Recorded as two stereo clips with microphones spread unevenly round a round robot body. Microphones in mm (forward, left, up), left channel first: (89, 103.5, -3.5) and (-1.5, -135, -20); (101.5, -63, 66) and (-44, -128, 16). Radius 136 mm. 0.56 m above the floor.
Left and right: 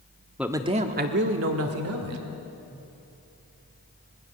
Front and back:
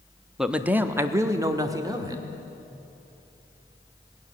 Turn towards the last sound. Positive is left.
turn(degrees=-100)